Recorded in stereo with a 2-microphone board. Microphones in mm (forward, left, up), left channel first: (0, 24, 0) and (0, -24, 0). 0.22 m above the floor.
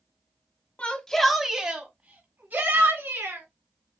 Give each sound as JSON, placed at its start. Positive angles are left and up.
{"t": 0.8, "sound": "a shout", "side_deg": 25, "distance_m": 1.4}